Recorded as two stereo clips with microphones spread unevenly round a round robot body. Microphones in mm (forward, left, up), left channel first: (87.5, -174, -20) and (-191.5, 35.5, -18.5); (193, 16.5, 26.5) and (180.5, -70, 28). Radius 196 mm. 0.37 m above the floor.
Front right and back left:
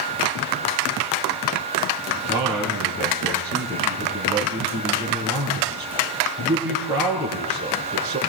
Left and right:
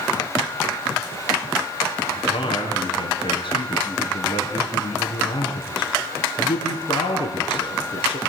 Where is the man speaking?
60° left, 5 m.